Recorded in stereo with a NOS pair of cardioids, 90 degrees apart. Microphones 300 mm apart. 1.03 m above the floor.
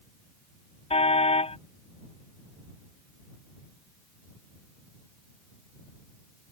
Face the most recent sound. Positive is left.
turn(degrees=20)